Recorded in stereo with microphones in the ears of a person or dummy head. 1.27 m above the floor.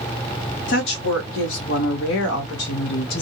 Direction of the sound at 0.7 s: 70° left (ahead or behind).